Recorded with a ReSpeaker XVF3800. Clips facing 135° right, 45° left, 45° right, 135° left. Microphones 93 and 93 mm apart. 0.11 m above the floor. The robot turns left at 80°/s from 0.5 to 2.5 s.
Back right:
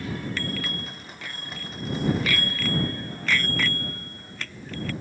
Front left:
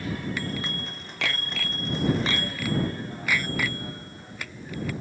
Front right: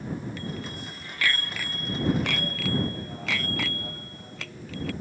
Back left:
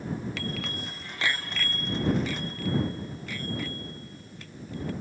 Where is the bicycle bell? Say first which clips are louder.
Even, back left 1 dB; 125° left; by 4.9 s 35° right.